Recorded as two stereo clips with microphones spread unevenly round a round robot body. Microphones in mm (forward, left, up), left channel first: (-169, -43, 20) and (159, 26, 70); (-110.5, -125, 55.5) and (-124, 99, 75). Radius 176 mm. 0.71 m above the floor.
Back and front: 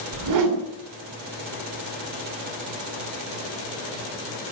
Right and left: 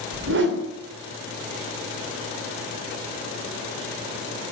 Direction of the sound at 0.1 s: 50° left.